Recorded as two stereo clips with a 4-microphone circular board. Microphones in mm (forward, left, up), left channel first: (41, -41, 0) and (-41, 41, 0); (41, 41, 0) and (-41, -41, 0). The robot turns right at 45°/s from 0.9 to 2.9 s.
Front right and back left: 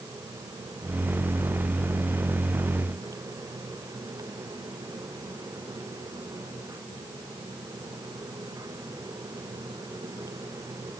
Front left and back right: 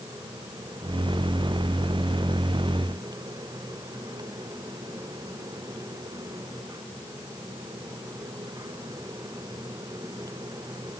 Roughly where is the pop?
I don't hear a pop.